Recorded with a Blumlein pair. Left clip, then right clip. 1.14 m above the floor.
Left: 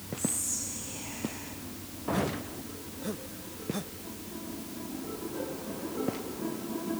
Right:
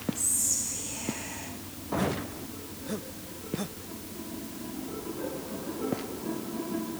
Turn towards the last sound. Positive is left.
turn(degrees=-60)